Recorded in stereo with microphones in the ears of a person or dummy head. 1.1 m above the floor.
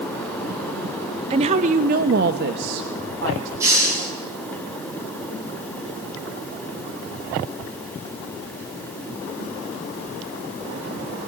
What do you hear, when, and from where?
1.3 s a woman speaking: 30° right (ahead or behind), 0.8 m; by 3.5 s 75° right (ahead or behind), 1.7 m
3.6 s a hiss: 15° right (ahead or behind), 5.5 m